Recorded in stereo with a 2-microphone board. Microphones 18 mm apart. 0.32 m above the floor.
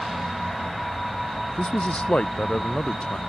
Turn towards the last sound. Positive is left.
turn(degrees=60)  # may be behind; listen again after turning